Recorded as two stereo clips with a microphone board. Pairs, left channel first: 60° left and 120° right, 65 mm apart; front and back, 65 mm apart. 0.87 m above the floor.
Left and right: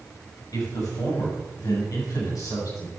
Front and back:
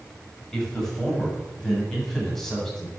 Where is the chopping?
No chopping in this recording.